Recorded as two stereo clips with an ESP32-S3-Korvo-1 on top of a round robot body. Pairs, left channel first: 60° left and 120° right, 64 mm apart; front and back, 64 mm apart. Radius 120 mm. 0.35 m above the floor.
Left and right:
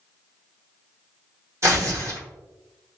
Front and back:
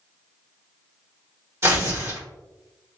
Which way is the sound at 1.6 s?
140° right.